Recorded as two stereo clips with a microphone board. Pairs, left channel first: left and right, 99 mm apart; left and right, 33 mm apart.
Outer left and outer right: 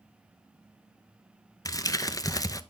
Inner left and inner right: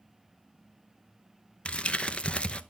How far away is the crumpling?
About 0.6 m.